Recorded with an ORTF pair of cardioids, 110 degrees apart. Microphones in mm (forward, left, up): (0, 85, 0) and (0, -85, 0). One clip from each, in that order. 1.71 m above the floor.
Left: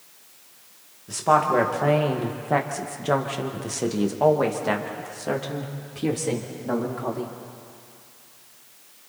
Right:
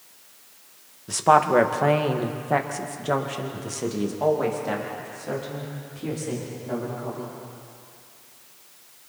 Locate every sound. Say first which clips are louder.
1.1 s a woman speaking: right 2 dB; 30° right, 2 m; by 7.3 s 55° left, 4 m